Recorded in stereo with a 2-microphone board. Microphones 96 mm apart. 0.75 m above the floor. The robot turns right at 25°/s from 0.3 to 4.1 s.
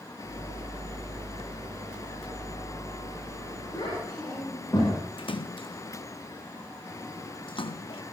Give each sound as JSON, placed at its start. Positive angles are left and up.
{"t": 3.7, "sound": "a child speaking", "side_deg": 45, "distance_m": 8.5}
{"t": 5.2, "sound": "a splash", "side_deg": 65, "distance_m": 0.7}